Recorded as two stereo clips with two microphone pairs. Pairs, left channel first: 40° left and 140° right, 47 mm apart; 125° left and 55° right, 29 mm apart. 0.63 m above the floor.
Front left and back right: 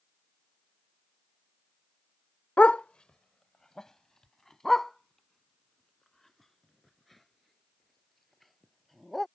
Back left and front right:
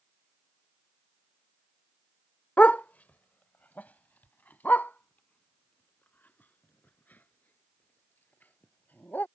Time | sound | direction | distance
2.6 | a dog barking | 100° left | ?